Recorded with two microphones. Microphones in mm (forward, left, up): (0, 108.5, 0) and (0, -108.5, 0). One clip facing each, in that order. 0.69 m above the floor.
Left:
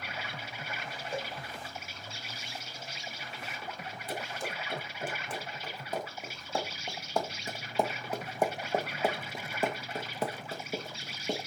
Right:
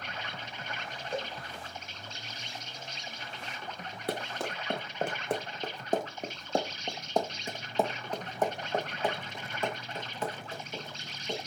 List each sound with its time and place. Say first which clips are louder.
0.0 s an insect: even; 10° left (ahead or behind), 1.3 m
1.1 s a cowbell: right 2 dB; 10° right (ahead or behind), 5.5 m
4.1 s running footsteps: right 4 dB; 75° right (ahead or behind), 3 m; by 11.4 s 45° left (ahead or behind), 4 m